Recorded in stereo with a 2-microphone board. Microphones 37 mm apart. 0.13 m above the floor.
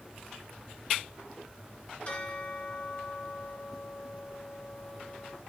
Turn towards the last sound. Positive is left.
turn(degrees=35)  # may be behind; listen again after turning